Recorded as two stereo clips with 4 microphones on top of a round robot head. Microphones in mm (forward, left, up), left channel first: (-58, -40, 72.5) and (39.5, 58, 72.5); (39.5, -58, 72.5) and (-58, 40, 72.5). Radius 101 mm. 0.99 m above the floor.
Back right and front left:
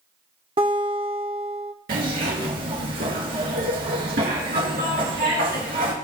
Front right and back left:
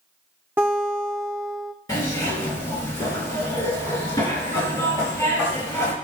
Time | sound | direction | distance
0.6 | a guitar | 65° left | 0.6 m
1.9 | a zipper | 20° left | 3 m